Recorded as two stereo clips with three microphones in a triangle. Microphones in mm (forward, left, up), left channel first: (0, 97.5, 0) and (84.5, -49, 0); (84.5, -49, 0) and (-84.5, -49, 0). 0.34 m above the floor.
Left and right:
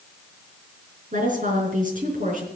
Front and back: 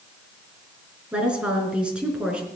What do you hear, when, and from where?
1.1 s a woman speaking: 95° right, 4.5 m